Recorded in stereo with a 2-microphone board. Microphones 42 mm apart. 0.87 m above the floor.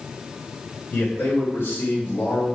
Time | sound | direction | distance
0.9 | a man speaking | 60° left (ahead or behind) | 4.5 m